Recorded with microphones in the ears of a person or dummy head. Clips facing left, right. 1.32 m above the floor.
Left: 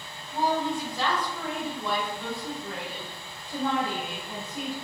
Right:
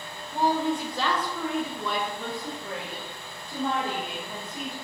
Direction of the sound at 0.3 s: 35° right (ahead or behind).